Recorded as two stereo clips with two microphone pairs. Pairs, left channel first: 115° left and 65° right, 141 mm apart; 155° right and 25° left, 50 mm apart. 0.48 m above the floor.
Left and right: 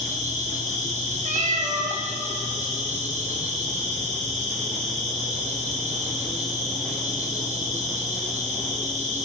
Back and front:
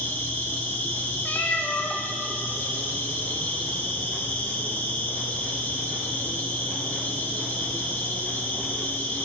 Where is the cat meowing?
95° right, 0.8 m.